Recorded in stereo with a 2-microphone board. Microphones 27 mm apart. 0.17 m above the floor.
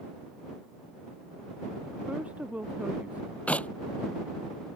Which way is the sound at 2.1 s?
80° right.